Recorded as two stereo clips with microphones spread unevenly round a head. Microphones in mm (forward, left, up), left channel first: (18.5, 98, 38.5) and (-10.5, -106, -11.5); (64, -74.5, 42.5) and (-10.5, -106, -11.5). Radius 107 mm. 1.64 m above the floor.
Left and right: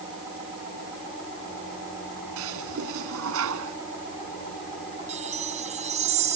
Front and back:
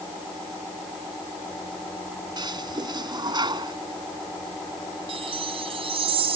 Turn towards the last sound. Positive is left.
turn(degrees=-160)